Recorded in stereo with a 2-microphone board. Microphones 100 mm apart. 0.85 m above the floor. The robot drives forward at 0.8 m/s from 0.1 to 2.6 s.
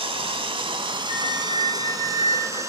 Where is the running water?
65° right (ahead or behind), 1.3 m; by 2.7 s 30° right (ahead or behind), 2.5 m.